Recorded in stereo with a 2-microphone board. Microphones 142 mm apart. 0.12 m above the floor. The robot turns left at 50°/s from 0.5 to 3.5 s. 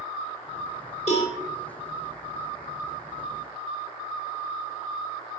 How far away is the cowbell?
About 4 m.